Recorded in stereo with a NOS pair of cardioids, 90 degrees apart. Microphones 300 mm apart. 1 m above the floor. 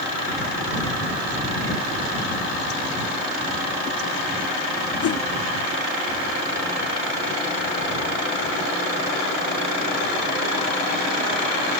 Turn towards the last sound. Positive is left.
turn(degrees=55)